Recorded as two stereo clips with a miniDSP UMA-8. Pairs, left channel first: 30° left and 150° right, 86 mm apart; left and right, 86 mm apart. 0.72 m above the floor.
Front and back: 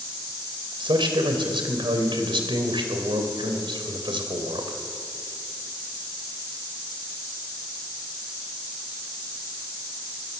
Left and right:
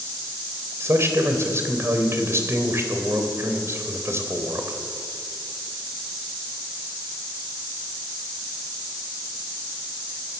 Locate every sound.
0.8 s a man speaking: 145° right, 3.5 m